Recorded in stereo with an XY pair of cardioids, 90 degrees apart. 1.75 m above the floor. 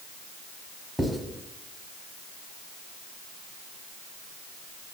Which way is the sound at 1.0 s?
5° left.